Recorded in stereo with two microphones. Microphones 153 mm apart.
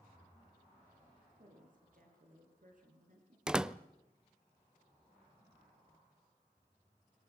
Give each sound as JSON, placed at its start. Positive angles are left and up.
{"t": 1.4, "sound": "a woman speaking", "side_deg": -60, "distance_m": 9.0}
{"t": 3.5, "sound": "a door slam", "side_deg": -5, "distance_m": 0.6}